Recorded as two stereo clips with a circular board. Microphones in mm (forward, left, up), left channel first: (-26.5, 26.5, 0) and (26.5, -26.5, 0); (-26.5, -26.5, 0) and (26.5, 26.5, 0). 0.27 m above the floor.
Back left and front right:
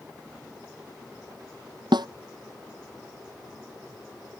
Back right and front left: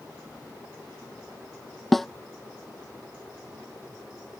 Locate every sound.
1.9 s a snare drum: 45° right